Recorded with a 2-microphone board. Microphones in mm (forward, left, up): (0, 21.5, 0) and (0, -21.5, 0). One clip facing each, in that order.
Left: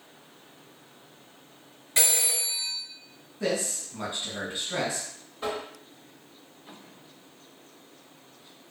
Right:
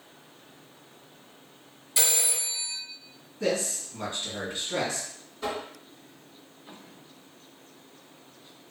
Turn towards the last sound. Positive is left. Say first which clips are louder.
# even
turn(degrees=30)  # may be behind; listen again after turning